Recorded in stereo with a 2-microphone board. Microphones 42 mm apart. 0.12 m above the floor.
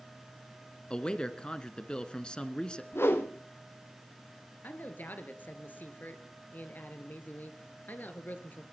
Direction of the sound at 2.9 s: 75° left (ahead or behind).